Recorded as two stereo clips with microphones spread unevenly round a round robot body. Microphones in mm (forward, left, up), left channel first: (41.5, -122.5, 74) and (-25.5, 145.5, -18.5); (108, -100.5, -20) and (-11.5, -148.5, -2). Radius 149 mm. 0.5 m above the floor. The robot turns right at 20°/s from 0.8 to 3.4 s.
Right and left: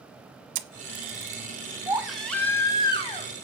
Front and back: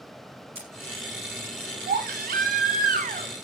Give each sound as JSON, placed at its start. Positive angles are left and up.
{"t": 0.6, "sound": "a camera shutter", "azimuth_deg": 135, "distance_m": 1.0}
{"t": 1.9, "sound": "a baby crying", "azimuth_deg": -175, "distance_m": 1.8}